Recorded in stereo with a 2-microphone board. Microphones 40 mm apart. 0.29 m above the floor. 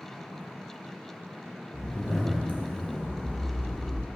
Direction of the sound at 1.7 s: 35° left (ahead or behind).